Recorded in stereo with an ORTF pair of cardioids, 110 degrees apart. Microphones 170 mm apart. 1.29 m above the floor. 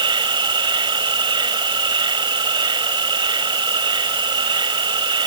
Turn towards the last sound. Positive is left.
turn(degrees=-30)